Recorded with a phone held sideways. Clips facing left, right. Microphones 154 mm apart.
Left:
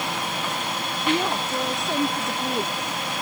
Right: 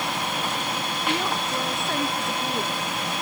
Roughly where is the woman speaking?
Centre.